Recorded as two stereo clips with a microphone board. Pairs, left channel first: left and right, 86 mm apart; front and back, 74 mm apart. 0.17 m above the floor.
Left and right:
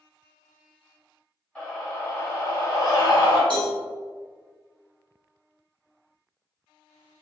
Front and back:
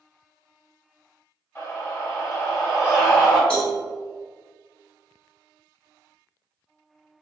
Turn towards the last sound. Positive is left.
turn(degrees=-80)